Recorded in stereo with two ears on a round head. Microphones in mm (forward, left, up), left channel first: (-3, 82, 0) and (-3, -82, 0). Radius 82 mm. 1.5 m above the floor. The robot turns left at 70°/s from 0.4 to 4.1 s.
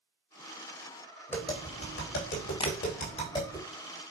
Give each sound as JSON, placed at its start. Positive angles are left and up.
{"t": 1.3, "sound": "tapping", "side_deg": 10, "distance_m": 3.5}
{"t": 2.6, "sound": "tapping", "side_deg": 25, "distance_m": 1.0}